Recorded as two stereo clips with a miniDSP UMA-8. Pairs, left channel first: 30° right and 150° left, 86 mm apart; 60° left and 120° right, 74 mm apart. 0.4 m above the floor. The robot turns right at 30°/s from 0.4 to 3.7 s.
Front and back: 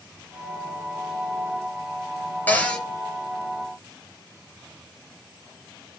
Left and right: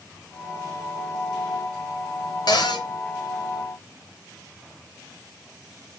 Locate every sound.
2.5 s a cupboard door: 40° left, 2.5 m; by 2.9 s 50° left, 2.5 m